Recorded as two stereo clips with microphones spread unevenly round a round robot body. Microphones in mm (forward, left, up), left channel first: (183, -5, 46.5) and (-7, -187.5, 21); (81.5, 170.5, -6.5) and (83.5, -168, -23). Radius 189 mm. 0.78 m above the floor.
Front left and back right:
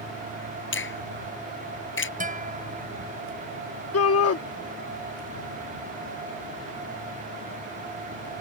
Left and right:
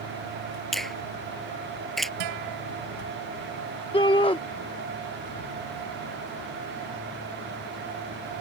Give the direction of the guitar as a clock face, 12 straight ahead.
3 o'clock.